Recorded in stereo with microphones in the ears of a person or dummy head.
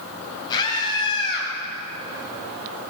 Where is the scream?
25° left (ahead or behind), 8 m; by 1.5 s 35° left (ahead or behind), 8.5 m.